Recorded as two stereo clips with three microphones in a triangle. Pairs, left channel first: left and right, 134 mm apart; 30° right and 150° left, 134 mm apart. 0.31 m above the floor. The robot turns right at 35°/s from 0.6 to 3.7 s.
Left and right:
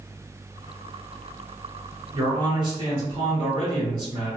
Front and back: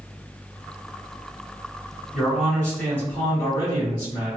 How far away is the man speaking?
About 1.3 m.